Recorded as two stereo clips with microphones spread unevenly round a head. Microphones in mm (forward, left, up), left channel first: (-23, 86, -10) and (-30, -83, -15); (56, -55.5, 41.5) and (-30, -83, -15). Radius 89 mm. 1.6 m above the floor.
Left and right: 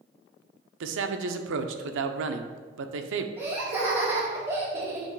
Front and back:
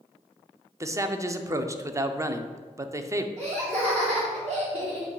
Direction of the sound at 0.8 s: 95° right.